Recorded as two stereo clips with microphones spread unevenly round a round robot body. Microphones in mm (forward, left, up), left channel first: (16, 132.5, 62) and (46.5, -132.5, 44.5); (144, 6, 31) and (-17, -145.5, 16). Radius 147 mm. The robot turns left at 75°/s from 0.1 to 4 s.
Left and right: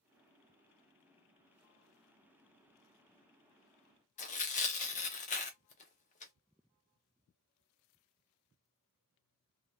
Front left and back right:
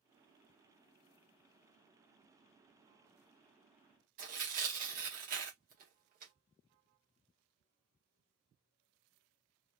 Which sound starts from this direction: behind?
Tearing paper, at 4.2 s.